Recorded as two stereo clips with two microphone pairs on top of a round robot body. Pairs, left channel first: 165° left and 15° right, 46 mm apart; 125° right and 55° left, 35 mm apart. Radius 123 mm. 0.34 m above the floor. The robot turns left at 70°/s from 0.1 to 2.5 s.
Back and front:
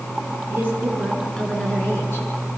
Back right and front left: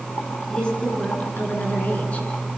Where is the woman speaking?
55° right, 7 m; by 2.3 s straight behind, 7 m.